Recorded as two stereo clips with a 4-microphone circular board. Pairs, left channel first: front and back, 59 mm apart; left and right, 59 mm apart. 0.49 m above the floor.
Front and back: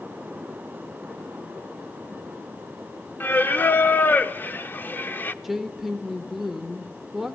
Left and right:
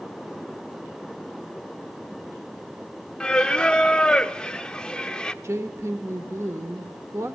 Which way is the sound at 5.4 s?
95° right.